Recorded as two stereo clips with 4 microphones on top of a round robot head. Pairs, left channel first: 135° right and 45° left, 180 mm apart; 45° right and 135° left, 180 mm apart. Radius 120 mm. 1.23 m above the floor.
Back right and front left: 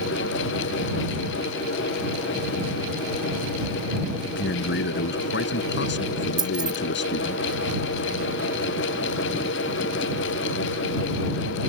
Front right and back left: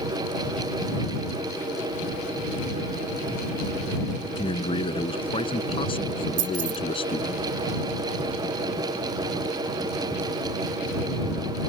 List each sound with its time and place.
4.2 s a man speaking: 110° right
6.4 s keys jangling: 115° left